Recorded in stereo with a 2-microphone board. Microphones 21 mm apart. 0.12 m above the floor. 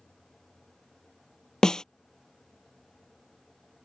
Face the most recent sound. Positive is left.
turn(degrees=40)  # may be behind; listen again after turning